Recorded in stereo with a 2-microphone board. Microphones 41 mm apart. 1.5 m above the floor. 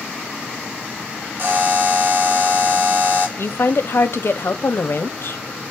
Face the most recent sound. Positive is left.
turn(degrees=60)  # may be behind; listen again after turning